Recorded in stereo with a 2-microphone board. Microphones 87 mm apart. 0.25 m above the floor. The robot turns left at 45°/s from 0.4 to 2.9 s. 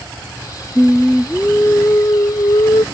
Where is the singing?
170° right; by 2.8 s 95° left.